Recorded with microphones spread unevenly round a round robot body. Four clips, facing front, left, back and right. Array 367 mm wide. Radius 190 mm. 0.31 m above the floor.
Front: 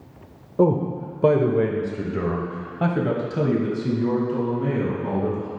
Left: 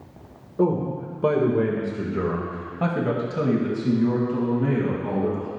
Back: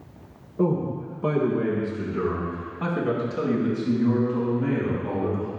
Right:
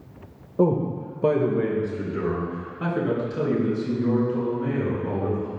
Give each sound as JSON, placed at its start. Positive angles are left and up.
{"t": 0.6, "sound": "a man speaking", "azimuth_deg": -15, "distance_m": 1.1}